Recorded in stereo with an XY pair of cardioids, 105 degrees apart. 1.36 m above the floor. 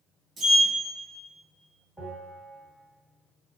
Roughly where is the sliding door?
Ahead right.